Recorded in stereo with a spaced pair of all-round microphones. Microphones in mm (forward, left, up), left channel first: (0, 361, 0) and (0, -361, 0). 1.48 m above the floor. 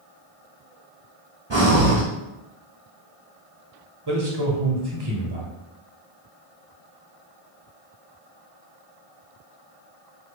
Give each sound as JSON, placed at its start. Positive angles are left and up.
{"t": 1.5, "sound": "breathing", "side_deg": -40, "distance_m": 1.3}
{"t": 4.1, "sound": "a man speaking", "side_deg": -35, "distance_m": 0.9}